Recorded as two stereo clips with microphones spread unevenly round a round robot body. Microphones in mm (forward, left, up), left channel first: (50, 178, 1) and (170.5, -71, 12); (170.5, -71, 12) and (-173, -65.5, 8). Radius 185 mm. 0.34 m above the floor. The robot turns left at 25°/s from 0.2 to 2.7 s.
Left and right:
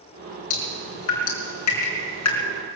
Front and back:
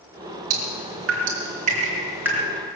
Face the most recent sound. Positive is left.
turn(degrees=85)